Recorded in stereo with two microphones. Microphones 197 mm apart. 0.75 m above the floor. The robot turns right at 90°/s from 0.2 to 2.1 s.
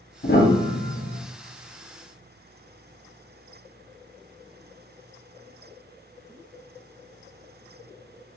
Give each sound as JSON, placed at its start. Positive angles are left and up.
{"t": 0.2, "sound": "a piano", "azimuth_deg": 70, "distance_m": 0.7}